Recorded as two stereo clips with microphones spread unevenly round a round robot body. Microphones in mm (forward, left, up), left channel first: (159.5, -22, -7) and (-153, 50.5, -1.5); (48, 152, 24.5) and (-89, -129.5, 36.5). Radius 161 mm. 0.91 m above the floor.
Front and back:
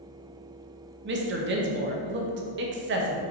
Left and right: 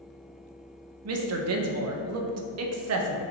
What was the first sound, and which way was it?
A woman speaking, 145° right.